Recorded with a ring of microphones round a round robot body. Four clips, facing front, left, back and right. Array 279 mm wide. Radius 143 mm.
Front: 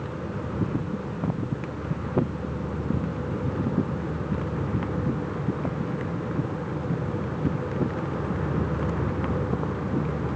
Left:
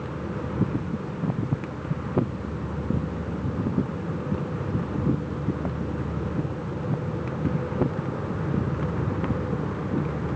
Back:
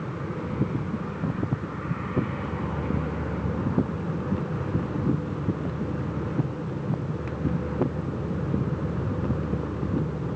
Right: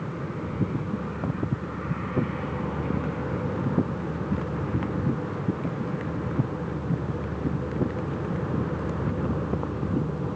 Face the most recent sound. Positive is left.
No sound to turn to.